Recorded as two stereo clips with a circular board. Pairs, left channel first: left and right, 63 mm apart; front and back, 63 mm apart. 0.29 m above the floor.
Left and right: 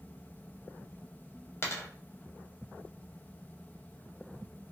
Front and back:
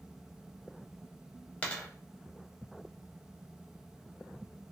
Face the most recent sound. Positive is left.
turn(degrees=60)